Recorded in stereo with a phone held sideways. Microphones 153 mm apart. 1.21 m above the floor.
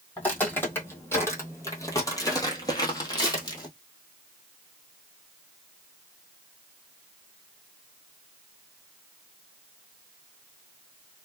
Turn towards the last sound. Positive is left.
turn(degrees=25)  # may be behind; listen again after turning